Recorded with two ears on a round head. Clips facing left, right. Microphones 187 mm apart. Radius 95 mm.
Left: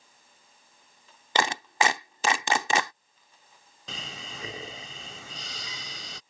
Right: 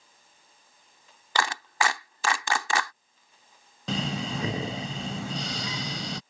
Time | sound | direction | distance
1.4 | a clap | 20° left (ahead or behind) | ?
3.9 | breathing | 55° right (ahead or behind) | ?